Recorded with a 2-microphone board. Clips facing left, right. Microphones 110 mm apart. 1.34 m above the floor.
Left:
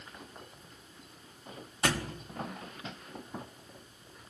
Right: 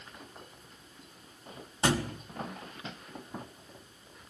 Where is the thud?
25° right (ahead or behind), 0.8 m.